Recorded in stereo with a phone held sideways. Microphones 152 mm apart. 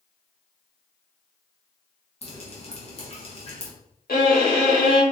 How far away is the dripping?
About 1.1 m.